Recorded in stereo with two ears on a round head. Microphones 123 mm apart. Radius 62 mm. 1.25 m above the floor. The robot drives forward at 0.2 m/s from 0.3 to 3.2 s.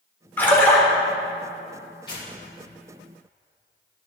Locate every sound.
0.4 s a splash: 15° left (ahead or behind), 2.5 m
2.1 s tearing paper: 40° left (ahead or behind), 4 m